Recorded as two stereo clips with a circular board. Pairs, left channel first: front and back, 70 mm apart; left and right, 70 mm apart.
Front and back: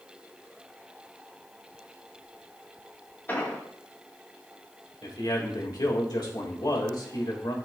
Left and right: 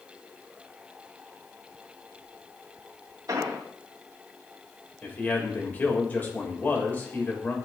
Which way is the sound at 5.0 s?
25° left.